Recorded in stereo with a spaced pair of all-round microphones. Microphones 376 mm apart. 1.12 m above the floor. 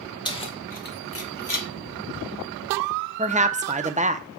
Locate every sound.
0.2 s keys jangling: 10° left (ahead or behind), 2 m; by 1.7 s 60° left (ahead or behind), 1.2 m
3.2 s a woman speaking: 20° right (ahead or behind), 0.7 m